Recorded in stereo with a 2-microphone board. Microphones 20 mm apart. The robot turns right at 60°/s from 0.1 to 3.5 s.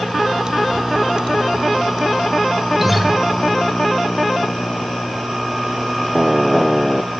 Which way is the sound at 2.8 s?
20° right (ahead or behind).